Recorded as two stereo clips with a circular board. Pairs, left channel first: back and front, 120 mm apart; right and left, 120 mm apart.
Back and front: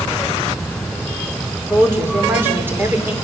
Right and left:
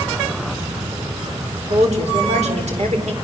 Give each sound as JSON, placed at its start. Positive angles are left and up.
{"t": 1.7, "sound": "a woman speaking", "azimuth_deg": 70, "distance_m": 4.0}